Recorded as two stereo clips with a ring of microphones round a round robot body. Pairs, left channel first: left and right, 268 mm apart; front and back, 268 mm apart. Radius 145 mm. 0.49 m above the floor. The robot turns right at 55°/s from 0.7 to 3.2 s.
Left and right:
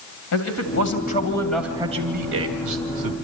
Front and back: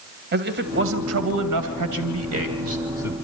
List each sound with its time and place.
0.3 s a man speaking: 130° left, 2.5 m; by 3.1 s 95° right, 2.5 m